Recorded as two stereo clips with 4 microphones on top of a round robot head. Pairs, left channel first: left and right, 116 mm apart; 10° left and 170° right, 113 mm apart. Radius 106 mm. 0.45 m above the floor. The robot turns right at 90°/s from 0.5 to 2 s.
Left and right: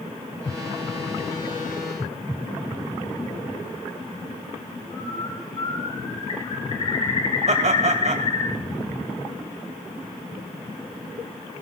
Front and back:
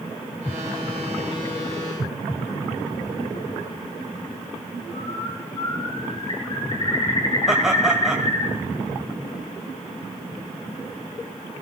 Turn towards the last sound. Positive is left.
turn(degrees=-85)